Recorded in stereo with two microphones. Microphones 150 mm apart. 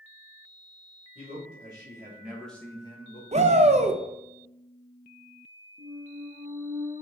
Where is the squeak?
15° right (ahead or behind), 1.4 m.